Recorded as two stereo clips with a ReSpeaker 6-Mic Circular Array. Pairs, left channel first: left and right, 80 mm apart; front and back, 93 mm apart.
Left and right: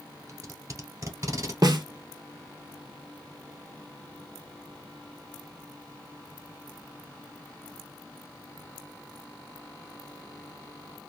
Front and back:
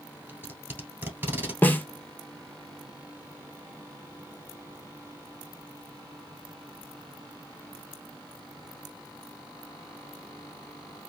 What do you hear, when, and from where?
0.3 s tape being pulled: 120° right, 1.3 m
1.6 s a snare drum: 65° right, 0.7 m